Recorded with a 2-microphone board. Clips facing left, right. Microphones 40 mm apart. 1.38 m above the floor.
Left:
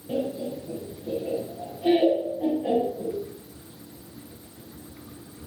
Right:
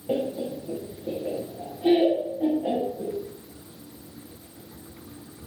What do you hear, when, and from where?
0.1 s laughter: 65° right (ahead or behind), 0.6 m; by 3.1 s centre (ahead or behind), 1.8 m